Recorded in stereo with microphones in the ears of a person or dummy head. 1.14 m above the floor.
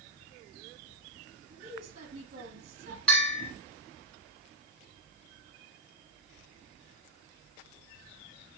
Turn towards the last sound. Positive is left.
turn(degrees=0)  # may be behind; listen again after turning